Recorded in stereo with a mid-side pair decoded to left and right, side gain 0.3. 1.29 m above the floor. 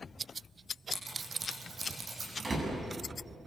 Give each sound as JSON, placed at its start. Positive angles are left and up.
{"t": 0.9, "sound": "scissors", "azimuth_deg": -55, "distance_m": 9.5}
{"t": 2.4, "sound": "a door slam", "azimuth_deg": -45, "distance_m": 9.0}